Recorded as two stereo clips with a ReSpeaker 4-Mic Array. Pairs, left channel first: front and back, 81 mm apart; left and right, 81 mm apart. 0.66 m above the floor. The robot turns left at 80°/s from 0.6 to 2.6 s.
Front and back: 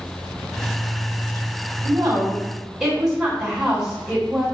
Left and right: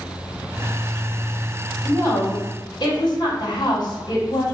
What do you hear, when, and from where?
1.8 s a woman speaking: 165° left, 1.6 m; by 4.5 s 105° left, 1.6 m